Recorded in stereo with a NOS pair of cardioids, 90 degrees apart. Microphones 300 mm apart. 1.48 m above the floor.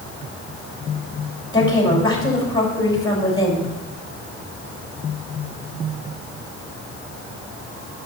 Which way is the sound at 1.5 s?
15° left.